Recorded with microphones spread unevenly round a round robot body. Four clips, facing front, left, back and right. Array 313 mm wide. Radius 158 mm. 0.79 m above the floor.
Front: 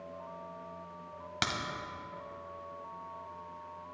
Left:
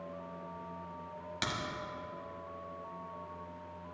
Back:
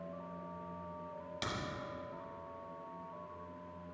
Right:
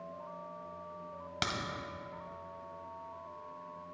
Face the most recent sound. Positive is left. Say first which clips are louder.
# right 1 dB, front 6 dB
turn(degrees=-25)